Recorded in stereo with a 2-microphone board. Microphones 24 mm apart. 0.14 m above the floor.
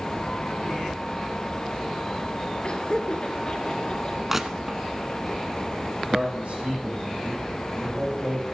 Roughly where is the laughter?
Left.